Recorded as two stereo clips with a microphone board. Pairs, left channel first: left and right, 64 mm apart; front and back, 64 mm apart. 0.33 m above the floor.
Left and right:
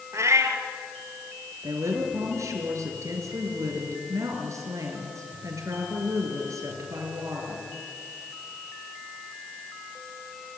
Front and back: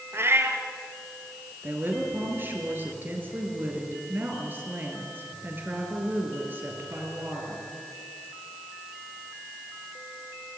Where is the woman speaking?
125° right, 5.5 m.